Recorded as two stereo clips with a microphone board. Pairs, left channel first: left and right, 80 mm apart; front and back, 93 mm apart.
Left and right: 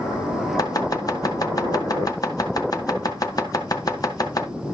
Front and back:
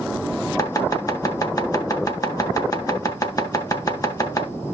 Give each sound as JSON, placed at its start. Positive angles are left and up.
{"t": 0.6, "sound": "chopping", "azimuth_deg": 50, "distance_m": 2.0}